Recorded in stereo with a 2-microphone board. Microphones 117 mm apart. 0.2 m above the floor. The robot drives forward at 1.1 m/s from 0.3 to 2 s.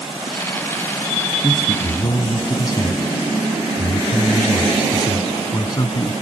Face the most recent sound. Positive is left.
turn(degrees=35)  # may be behind; listen again after turning